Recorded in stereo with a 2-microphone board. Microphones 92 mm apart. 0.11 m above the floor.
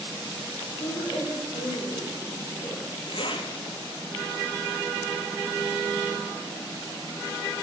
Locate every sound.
0.8 s a woman speaking: 55° left (ahead or behind), 3.5 m; by 2.9 s 15° left (ahead or behind), 1.5 m
3.1 s a zipper: 65° left (ahead or behind), 0.8 m